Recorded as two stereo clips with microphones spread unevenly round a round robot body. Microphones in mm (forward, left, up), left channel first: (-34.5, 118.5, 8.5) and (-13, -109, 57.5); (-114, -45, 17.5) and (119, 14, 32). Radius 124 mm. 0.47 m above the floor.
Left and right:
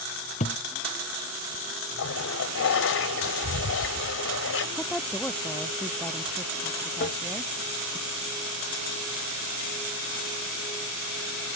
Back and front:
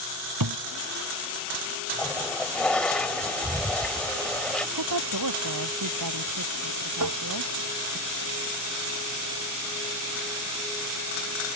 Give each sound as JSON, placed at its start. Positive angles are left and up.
{"t": 0.4, "sound": "a thud", "azimuth_deg": 30}
{"t": 2.0, "sound": "a toilet flushing", "azimuth_deg": 110}
{"t": 4.8, "sound": "a woman speaking", "azimuth_deg": 10}
{"t": 7.0, "sound": "tapping", "azimuth_deg": 45}